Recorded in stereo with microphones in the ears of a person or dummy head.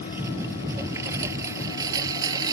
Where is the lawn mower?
15° right (ahead or behind); by 2.5 s 25° right (ahead or behind).